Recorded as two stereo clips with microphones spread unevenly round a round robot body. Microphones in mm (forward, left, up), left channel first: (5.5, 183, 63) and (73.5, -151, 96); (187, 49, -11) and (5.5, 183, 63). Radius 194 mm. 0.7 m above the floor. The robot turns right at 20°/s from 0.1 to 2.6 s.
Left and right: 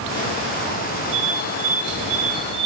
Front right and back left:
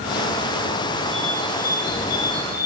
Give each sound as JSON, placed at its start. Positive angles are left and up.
{"t": 1.1, "sound": "a bird", "azimuth_deg": -95, "distance_m": 5.0}